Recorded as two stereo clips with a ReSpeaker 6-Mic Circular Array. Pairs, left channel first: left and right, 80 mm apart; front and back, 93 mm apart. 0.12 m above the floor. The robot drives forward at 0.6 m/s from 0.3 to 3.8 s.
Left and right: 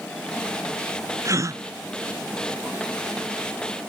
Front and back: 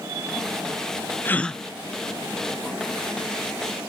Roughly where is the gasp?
Ahead right.